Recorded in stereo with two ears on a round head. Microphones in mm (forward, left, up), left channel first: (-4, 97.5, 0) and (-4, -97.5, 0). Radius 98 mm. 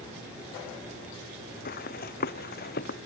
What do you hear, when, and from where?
1.6 s running footsteps: 45° left (ahead or behind)